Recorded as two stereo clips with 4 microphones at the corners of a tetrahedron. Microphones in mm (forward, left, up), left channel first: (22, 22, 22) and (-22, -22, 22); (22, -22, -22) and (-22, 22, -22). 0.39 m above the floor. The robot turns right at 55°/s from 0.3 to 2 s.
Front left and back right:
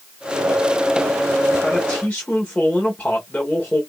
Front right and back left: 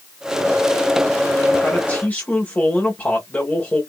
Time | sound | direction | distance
1.6 | a man speaking | 30° right | 1.2 m